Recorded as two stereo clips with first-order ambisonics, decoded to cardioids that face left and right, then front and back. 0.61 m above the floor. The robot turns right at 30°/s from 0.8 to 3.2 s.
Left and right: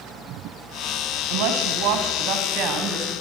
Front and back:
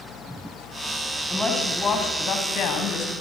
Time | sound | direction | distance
1.3 | a woman speaking | 85° right | 4 m